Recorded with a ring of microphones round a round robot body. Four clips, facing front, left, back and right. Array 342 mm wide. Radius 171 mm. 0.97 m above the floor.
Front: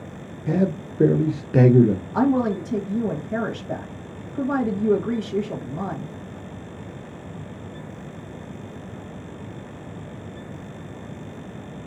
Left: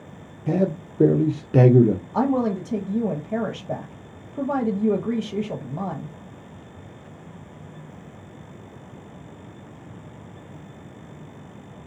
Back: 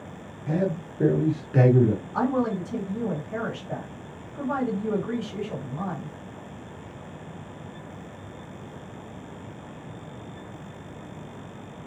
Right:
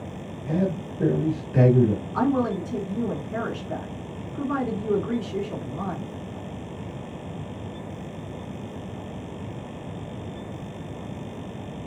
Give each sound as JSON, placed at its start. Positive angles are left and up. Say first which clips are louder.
{"t": 0.5, "sound": "a man speaking", "louder": "left 3 dB, front 4 dB", "azimuth_deg": 55, "distance_m": 0.9}
{"t": 2.1, "sound": "a woman speaking", "louder": "even, front 6 dB", "azimuth_deg": 60, "distance_m": 1.1}